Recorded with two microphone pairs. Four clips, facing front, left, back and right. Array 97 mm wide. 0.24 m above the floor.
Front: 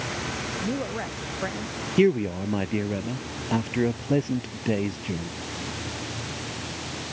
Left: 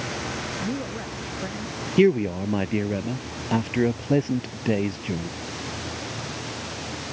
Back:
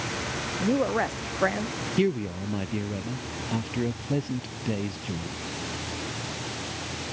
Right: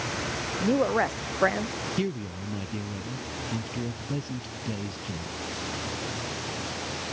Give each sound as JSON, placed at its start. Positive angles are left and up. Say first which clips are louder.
{"t": 0.6, "sound": "a woman speaking", "louder": "right 11 dB, back 7 dB", "azimuth_deg": -115}
{"t": 2.0, "sound": "a man speaking", "louder": "left 15 dB, front 5 dB", "azimuth_deg": 65}